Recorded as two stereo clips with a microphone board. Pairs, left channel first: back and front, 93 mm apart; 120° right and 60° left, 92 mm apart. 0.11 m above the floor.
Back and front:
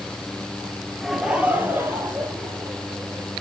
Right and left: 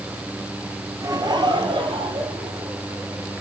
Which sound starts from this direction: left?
Laughter, at 1.0 s.